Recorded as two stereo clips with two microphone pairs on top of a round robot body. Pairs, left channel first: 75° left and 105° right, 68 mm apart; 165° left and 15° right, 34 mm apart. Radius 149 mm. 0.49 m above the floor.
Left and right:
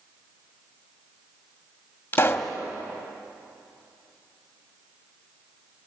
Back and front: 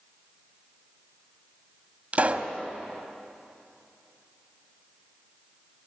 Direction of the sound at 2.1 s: 20° left.